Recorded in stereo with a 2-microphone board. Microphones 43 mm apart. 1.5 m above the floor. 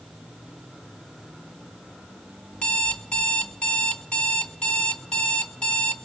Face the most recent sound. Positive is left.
turn(degrees=25)  # may be behind; listen again after turning